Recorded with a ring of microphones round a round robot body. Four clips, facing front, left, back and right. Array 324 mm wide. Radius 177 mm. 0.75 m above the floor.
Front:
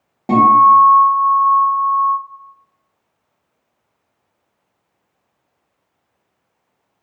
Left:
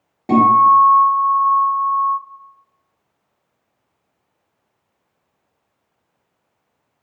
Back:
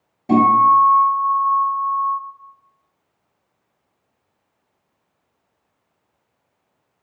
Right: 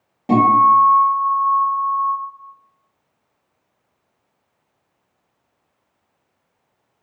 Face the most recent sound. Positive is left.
turn(degrees=20)